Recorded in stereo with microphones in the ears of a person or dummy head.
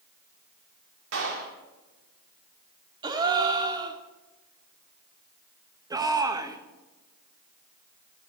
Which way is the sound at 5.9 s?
25° right (ahead or behind).